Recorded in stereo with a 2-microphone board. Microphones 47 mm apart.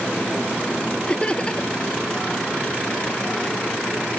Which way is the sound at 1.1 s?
25° left (ahead or behind).